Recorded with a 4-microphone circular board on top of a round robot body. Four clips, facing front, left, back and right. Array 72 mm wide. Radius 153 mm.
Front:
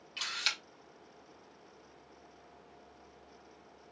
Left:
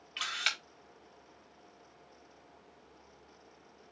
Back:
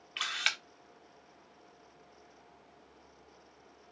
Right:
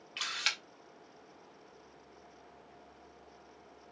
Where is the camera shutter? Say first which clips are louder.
Left 2 dB, back 4 dB; straight behind, 2 m.